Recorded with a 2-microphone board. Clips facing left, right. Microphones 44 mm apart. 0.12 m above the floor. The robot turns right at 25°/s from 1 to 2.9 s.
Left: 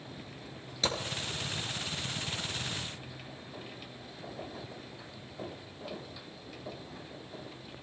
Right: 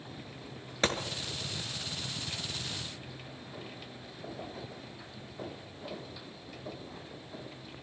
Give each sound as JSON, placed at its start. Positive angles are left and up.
{"t": 0.8, "sound": "a gunshot", "side_deg": -45, "distance_m": 1.3}